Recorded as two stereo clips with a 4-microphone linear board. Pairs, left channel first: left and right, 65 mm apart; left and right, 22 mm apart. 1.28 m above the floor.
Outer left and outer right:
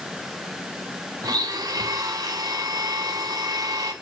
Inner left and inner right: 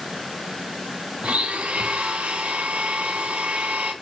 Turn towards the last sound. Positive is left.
turn(degrees=-85)